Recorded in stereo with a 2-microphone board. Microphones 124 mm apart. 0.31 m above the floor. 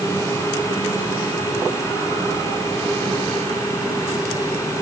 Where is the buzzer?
No buzzer in this recording.